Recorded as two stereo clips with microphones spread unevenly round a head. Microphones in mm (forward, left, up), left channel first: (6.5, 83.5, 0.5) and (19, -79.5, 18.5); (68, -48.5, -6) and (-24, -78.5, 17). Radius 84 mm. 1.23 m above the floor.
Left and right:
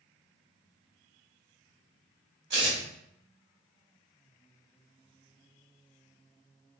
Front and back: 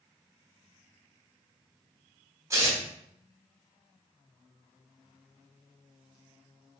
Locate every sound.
2.5 s tearing paper: 110° right, 1.3 m